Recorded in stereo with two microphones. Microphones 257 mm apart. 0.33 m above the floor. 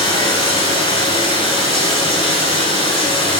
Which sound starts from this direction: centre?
Running water, at 0.0 s.